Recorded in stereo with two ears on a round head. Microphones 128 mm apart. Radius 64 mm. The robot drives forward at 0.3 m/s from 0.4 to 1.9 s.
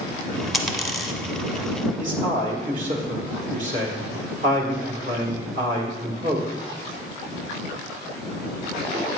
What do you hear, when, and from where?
0.5 s a dropped coin: centre (ahead or behind), 1.1 m
2.0 s a man speaking: 55° right (ahead or behind), 2 m